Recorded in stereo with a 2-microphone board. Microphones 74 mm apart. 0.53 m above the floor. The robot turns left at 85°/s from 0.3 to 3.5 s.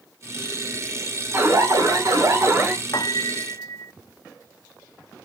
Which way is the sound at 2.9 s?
100° left.